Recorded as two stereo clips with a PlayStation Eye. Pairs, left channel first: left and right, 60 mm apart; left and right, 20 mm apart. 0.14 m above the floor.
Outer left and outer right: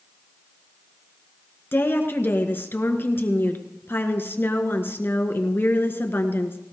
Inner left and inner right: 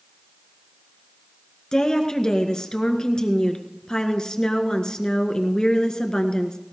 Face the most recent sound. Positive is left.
turn(degrees=40)  # may be behind; listen again after turning